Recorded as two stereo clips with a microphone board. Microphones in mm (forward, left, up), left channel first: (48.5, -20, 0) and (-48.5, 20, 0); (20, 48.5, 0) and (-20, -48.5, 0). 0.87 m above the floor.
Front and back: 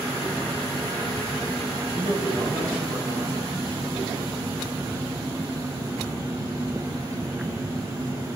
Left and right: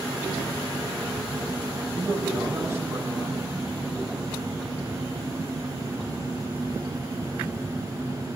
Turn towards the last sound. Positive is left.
turn(degrees=-175)